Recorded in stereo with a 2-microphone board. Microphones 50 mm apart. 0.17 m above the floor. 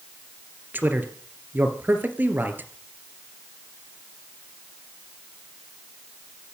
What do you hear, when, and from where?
0.7 s a man speaking: 40° right (ahead or behind), 3 m